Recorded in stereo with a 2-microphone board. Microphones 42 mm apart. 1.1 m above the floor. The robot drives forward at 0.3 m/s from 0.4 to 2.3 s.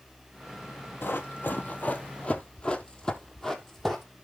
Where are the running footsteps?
55° left (ahead or behind), 1.7 m; by 4.0 s 5° left (ahead or behind), 2 m.